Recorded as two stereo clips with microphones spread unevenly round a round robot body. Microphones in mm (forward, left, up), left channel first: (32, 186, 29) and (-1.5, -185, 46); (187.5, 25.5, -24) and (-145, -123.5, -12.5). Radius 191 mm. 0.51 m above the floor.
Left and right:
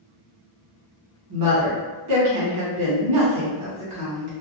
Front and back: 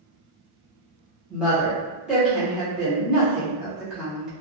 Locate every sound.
1.3 s a woman speaking: 70° right, 1.1 m